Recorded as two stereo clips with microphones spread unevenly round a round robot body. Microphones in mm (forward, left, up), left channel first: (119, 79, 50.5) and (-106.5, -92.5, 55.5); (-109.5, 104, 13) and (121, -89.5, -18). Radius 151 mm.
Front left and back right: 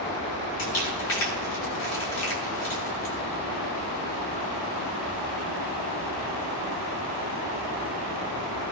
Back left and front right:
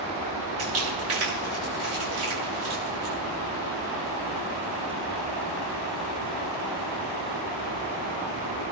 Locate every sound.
0.6 s crumpling: straight ahead, 7 m